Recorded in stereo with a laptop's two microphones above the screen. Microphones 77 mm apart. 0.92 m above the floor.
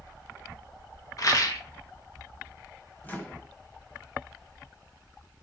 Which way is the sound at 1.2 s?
45° left (ahead or behind).